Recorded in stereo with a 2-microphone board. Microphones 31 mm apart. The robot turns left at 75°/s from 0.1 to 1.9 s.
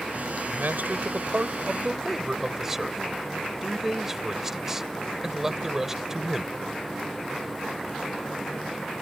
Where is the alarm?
I don't hear an alarm.